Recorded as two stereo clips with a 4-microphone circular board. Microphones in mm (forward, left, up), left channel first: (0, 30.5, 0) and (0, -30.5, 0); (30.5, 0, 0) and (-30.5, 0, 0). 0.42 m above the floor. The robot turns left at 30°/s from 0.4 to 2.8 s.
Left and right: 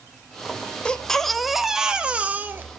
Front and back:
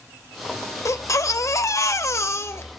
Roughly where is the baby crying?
Ahead.